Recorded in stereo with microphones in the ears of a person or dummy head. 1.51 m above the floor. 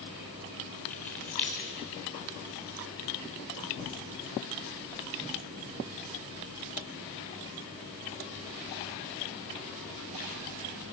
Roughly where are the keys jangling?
Centre.